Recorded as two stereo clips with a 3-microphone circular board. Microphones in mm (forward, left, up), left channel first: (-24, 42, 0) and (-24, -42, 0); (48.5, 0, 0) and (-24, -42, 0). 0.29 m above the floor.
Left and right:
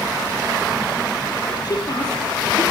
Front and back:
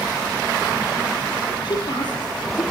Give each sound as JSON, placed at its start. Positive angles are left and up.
{"t": 1.6, "sound": "a woman speaking", "azimuth_deg": 55, "distance_m": 6.0}